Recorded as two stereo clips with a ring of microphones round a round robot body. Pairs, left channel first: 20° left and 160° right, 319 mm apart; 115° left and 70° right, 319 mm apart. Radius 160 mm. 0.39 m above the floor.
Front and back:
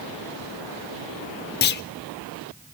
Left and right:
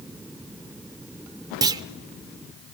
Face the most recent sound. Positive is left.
turn(degrees=0)